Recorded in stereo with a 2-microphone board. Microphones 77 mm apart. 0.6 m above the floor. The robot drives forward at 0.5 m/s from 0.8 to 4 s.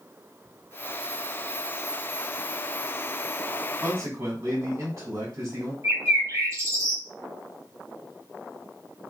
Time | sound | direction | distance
3.8 | a man speaking | 40° right (ahead or behind) | 1.6 m
5.8 | a bird | 40° right (ahead or behind) | 1.5 m